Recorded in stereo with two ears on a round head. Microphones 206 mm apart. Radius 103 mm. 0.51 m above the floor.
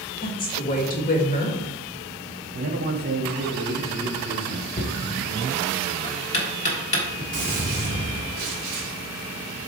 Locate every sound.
0.2 s a woman speaking: 40° left (ahead or behind), 1.6 m
2.5 s a man speaking: 45° right (ahead or behind), 1.2 m
4.8 s knocking: 30° left (ahead or behind), 1.2 m
7.3 s a gunshot: 35° right (ahead or behind), 3 m